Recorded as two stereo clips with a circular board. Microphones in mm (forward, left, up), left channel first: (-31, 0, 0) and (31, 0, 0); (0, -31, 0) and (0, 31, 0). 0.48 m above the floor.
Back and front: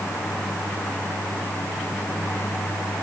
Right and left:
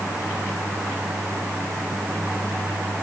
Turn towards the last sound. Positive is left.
No sound to turn to.